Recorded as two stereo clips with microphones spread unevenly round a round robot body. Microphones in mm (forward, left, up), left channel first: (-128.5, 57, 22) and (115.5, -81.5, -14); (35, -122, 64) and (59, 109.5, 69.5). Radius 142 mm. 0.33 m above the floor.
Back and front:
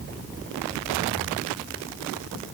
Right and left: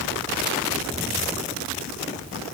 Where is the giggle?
No giggle in this recording.